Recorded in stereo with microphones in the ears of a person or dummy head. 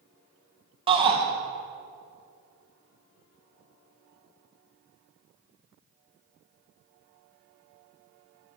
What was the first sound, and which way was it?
A shout, 30° right (ahead or behind).